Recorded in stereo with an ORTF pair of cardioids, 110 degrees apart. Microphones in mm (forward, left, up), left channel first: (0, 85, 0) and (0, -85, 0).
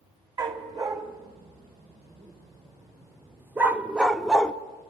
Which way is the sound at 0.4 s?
25° right.